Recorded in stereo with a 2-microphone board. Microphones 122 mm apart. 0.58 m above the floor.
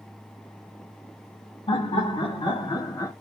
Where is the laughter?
50° left (ahead or behind), 1.4 m; by 3.1 s 25° left (ahead or behind), 1.0 m.